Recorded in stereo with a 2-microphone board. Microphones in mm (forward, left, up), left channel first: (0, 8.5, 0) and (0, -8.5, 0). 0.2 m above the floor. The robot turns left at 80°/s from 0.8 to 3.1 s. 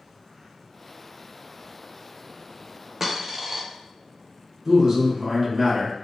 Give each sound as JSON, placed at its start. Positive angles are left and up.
{"t": 3.0, "sound": "a dropped coin", "side_deg": -25, "distance_m": 0.6}
{"t": 4.7, "sound": "a man speaking", "side_deg": -35, "distance_m": 1.2}